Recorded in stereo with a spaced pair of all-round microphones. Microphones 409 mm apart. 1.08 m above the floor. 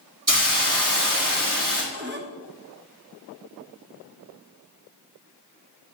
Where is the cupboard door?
25° right (ahead or behind), 0.7 m.